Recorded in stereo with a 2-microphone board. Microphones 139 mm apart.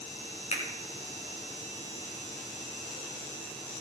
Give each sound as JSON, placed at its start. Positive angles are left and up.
{"t": 0.5, "sound": "a finger snap", "side_deg": 55, "distance_m": 3.0}